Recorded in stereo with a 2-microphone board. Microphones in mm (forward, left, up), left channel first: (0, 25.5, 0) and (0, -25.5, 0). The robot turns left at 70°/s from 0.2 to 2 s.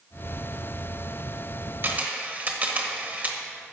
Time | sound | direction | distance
1.8 | a camera shutter | 45° right (ahead or behind) | 1.0 m